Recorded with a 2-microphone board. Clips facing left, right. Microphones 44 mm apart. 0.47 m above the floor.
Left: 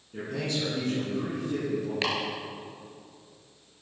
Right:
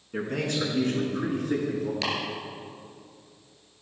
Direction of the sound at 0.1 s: 50° right (ahead or behind).